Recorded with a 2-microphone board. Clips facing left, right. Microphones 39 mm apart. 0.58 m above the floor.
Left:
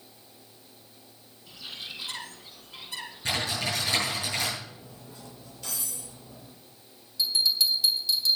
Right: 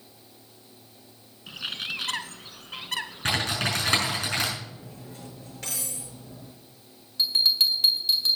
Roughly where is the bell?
Right.